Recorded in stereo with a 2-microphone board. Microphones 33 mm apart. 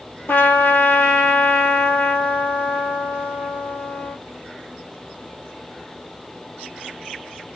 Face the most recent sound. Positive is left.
turn(degrees=80)